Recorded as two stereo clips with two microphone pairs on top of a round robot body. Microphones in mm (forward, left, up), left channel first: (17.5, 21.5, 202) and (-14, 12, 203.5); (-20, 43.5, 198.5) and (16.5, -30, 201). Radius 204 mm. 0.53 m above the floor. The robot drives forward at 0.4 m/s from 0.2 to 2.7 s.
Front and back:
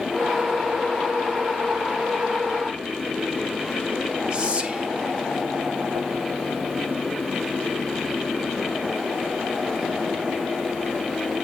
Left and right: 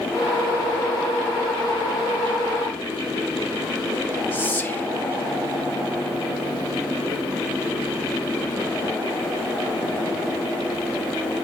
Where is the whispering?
165° left, 1.1 m.